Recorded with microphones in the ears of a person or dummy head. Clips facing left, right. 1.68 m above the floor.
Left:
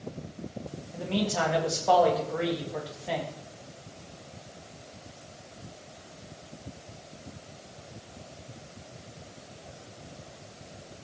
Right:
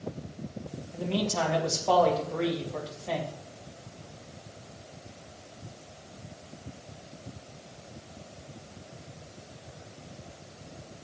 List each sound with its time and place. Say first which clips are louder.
0.9 s a man speaking: even; 10° left (ahead or behind), 2 m